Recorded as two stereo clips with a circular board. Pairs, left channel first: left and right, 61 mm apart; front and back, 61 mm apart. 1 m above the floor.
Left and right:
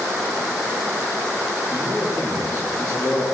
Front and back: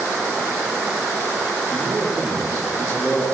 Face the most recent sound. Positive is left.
turn(degrees=35)